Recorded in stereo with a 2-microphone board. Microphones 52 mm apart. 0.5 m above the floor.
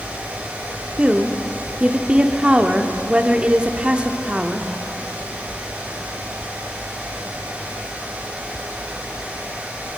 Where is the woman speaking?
20° right (ahead or behind), 0.9 m.